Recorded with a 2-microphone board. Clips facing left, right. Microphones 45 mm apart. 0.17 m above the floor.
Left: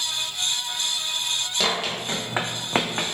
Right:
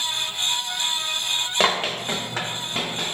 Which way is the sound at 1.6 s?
35° right (ahead or behind).